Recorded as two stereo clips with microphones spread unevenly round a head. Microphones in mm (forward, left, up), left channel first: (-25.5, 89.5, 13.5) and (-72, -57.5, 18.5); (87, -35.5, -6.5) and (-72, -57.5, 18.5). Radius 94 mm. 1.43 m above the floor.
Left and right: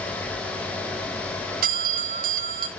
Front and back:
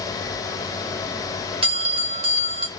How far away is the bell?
About 1.4 m.